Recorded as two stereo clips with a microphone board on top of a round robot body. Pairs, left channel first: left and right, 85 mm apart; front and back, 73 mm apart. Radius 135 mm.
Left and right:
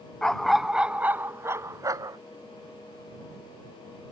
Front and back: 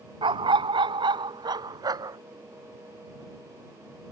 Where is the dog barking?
170° left; by 2.2 s 140° right.